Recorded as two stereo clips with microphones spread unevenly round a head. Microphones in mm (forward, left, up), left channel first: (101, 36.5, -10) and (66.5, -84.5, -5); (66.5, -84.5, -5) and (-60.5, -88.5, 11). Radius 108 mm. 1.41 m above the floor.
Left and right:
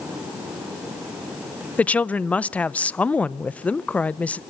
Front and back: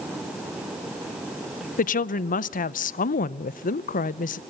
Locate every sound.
1.8 s a woman speaking: 5° right, 0.7 m